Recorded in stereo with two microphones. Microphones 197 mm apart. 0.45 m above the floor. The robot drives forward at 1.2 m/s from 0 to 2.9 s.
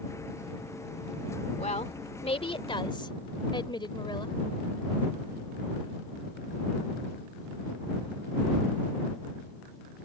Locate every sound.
1.6 s a woman speaking: 35° left (ahead or behind); by 4.4 s 25° left (ahead or behind)